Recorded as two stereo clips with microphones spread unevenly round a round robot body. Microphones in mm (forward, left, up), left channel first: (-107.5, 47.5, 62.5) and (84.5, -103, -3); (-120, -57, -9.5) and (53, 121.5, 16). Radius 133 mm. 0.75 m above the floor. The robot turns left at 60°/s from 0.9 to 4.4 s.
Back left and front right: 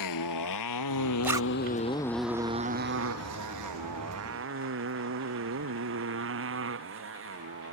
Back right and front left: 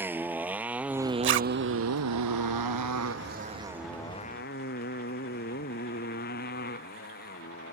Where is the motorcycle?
125° left; by 7.7 s 75° right.